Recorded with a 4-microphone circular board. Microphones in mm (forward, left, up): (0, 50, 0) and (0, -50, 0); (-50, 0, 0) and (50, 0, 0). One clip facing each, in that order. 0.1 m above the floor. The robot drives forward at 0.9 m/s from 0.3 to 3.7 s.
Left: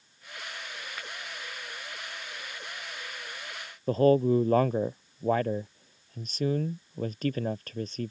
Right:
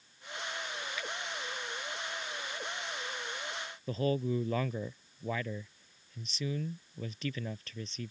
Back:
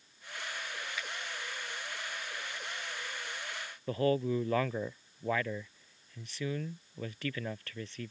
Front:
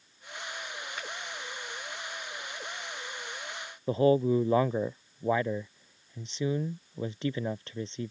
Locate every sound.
1.0 s a finger snap: 50° left
3.9 s a man speaking: 65° left